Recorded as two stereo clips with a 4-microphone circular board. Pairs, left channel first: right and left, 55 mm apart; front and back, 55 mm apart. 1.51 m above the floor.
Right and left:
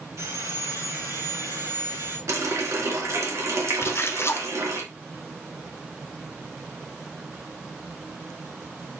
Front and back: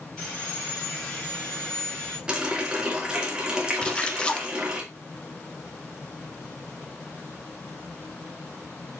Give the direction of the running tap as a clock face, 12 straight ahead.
8 o'clock.